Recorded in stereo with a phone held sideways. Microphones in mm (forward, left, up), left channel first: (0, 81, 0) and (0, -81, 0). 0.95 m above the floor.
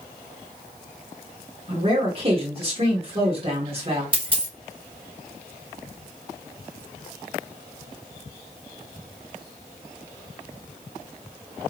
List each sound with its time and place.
1.7 s a man speaking: 35° right (ahead or behind), 1.7 m
4.1 s a dropped coin: 35° right (ahead or behind), 1.1 m